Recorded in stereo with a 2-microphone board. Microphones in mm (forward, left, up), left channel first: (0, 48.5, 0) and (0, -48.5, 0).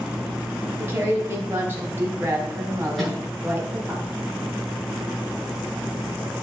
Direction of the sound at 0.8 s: 20° right (ahead or behind).